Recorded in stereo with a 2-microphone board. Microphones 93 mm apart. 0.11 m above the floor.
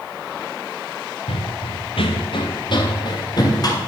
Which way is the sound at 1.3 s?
85° left.